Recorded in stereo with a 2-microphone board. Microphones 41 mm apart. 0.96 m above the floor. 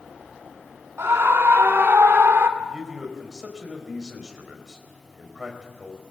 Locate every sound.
1.0 s a scream: 85° right, 1.7 m; by 2.5 s 65° right (ahead or behind), 2 m
2.6 s a man speaking: 15° right (ahead or behind), 4 m